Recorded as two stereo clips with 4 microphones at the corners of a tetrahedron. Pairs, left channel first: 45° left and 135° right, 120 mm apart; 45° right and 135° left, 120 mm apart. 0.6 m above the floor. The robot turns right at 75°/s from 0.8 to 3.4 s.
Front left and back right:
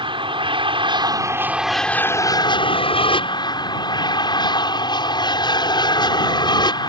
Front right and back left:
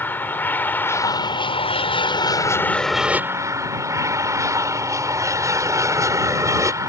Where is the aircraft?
115° right; by 6.9 s 80° left.